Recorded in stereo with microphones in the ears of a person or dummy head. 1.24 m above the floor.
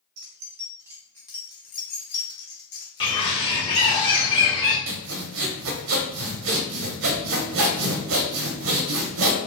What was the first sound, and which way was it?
Keys jangling, 55° right (ahead or behind).